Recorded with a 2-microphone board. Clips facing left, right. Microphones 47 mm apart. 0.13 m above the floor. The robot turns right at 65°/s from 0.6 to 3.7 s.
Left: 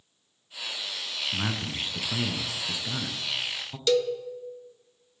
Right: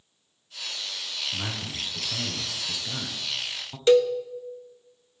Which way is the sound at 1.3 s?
25° left (ahead or behind).